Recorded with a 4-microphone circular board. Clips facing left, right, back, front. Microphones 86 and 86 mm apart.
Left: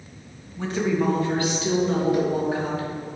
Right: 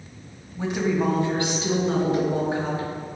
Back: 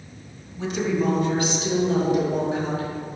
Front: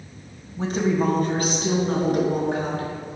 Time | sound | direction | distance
0.6 | a woman speaking | 25° right | 1.8 m